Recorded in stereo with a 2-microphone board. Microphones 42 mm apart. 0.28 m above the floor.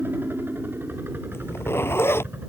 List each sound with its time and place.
0.0 s a helicopter: 60° right (ahead or behind)
1.3 s a zipper: 80° left